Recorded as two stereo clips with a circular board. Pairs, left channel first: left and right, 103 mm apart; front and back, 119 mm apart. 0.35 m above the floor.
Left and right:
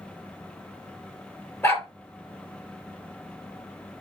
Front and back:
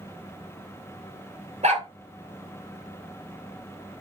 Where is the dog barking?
160° left, 2 m.